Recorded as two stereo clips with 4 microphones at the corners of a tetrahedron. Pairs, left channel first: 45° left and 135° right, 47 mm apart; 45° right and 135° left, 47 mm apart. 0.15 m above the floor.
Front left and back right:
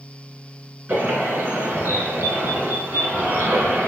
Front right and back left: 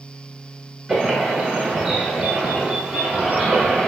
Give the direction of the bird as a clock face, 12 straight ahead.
5 o'clock.